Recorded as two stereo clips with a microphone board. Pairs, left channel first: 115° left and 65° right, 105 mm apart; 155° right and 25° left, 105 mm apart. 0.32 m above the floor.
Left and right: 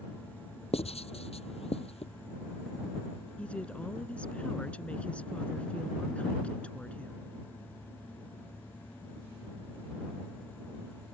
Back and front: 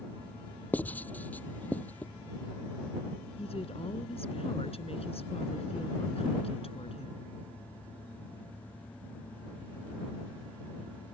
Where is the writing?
130° left.